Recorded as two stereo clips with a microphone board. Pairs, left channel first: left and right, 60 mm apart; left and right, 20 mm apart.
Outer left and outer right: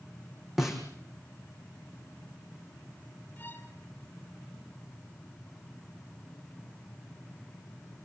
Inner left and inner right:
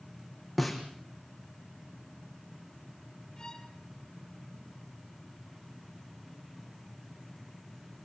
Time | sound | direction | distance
0.6 | a snare drum | 5° right (ahead or behind) | 5.5 m
3.4 | a violin | 30° left (ahead or behind) | 6.5 m